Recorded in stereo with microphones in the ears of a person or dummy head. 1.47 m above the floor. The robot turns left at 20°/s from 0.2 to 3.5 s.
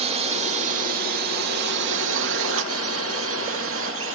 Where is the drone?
45° right; by 4.2 s 110° right.